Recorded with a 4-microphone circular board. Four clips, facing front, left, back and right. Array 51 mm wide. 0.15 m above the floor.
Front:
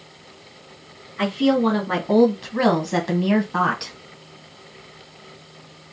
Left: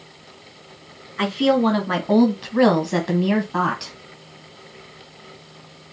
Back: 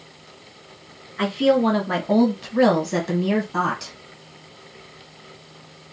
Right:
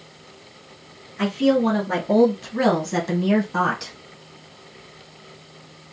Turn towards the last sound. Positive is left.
turn(degrees=20)